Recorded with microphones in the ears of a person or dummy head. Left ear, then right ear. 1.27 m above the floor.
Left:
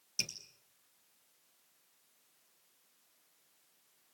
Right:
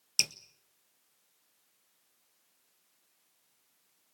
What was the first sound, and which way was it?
Dripping, 40° right (ahead or behind).